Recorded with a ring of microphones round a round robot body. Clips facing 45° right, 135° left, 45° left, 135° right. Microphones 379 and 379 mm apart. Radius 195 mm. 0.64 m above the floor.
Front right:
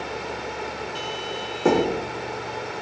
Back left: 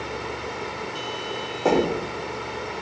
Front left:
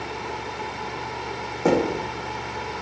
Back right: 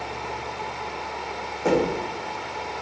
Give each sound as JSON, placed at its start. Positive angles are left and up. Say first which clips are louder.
{"t": 1.6, "sound": "knocking", "louder": "front right 1 dB, front left 1 dB", "azimuth_deg": 20, "distance_m": 0.6}